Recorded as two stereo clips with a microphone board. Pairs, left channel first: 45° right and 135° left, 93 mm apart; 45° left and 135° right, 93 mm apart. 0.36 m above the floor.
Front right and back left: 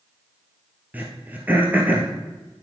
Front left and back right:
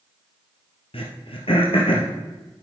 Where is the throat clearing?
60° left, 1.9 m.